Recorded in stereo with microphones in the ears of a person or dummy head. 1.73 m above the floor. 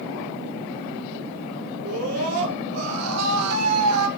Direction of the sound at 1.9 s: 80° right.